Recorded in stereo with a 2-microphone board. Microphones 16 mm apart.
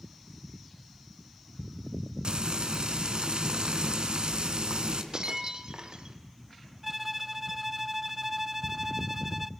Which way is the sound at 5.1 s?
50° right (ahead or behind).